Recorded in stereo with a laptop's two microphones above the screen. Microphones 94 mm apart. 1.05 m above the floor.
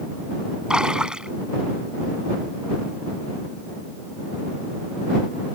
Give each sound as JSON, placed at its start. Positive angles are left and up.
{"t": 0.7, "sound": "a splash", "side_deg": -10}